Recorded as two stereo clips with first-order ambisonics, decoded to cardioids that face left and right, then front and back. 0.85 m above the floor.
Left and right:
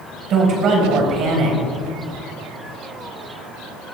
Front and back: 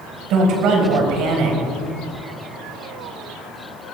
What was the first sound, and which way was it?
A woman speaking, 140° right.